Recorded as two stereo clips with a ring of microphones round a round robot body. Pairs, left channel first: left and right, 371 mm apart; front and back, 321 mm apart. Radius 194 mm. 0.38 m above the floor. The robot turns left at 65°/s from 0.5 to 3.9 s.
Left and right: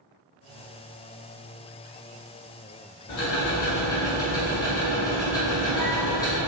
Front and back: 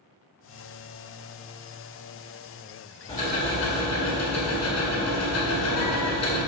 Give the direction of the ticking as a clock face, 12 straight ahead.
10 o'clock.